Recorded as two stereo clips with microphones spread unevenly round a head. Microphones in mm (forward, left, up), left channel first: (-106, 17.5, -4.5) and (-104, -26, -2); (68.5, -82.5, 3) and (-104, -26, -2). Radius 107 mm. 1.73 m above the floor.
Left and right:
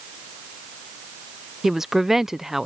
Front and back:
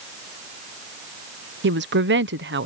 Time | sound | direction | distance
1.6 | a woman speaking | 170° right | ?